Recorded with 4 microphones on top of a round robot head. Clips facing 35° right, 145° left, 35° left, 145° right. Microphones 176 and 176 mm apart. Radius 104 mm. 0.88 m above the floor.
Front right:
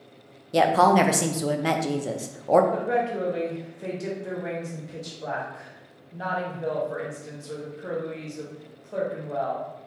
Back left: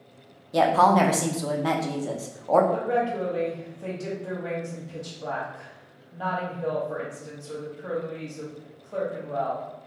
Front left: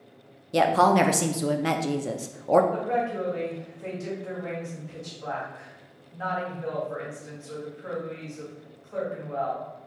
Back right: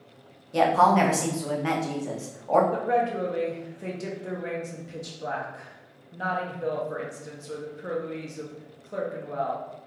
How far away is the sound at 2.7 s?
About 1.1 m.